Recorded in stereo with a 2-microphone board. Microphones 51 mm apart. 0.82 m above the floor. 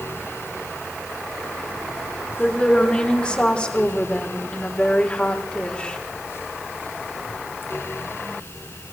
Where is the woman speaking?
20° left (ahead or behind), 3 m.